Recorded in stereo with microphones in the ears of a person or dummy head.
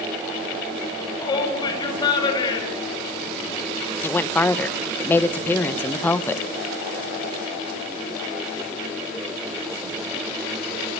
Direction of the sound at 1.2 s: 25° left (ahead or behind).